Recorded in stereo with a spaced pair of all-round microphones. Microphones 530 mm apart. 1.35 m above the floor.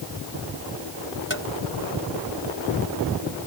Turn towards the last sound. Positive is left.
turn(degrees=20)  # may be behind; listen again after turning